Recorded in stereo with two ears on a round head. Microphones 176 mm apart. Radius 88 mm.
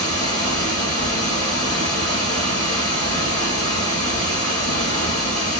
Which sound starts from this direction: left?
Running water, at 0.0 s.